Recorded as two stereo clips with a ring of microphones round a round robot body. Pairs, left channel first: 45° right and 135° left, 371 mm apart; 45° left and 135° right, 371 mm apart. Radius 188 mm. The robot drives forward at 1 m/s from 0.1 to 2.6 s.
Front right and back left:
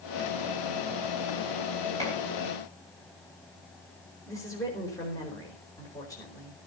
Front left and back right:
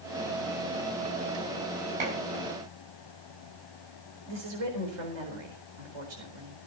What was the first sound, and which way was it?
Dishes clattering, 125° right.